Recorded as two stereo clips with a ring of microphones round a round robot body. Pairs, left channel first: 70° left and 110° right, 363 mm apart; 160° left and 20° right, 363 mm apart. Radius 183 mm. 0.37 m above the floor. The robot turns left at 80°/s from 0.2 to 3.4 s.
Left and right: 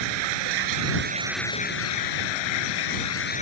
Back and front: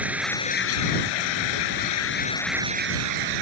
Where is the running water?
110° right; by 3.4 s 5° right.